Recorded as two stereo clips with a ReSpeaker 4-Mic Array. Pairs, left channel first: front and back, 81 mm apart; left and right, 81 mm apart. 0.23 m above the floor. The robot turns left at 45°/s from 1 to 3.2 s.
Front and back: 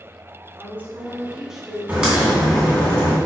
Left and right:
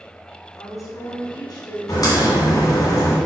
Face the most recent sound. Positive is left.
turn(degrees=55)